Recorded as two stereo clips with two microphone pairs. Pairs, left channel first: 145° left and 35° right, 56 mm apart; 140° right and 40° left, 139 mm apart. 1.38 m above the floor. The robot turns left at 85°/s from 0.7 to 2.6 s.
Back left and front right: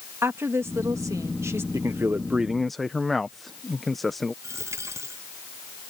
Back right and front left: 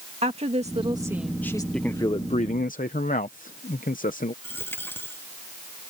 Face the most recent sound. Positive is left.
turn(degrees=-65)